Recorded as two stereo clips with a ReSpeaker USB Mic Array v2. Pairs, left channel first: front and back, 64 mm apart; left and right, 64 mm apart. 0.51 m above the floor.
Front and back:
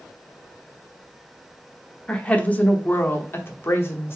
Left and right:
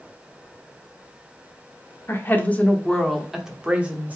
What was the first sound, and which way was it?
A woman speaking, 65° left.